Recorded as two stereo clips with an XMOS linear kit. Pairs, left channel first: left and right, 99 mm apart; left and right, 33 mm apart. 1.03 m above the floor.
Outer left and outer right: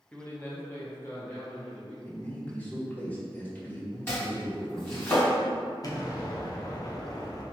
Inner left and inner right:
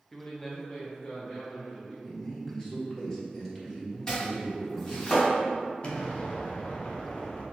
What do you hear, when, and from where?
0.1 s a man speaking: 10° left (ahead or behind), 0.7 m; by 1.9 s 25° left (ahead or behind), 2.5 m
2.0 s a man speaking: 15° left (ahead or behind), 1.1 m
4.1 s chopping: 25° left (ahead or behind), 1.9 m
5.8 s an explosion: 40° left (ahead or behind), 0.6 m